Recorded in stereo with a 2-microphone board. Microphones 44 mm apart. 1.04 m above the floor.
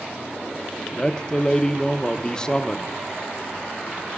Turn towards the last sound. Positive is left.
turn(degrees=20)  # may be behind; listen again after turning